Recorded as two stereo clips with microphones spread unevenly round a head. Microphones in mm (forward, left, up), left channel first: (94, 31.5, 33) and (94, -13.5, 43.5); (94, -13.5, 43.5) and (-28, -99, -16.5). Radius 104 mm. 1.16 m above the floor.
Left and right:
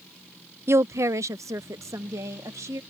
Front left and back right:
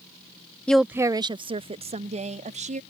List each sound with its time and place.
0.7 s a woman speaking: 60° right; by 2.8 s 110° right